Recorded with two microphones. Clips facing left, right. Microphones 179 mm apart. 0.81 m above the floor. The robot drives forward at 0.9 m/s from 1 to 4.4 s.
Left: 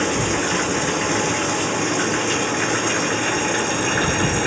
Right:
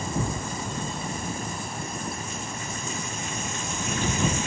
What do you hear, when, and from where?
0.0 s running water: 85° left; by 4.5 s 70° left (ahead or behind)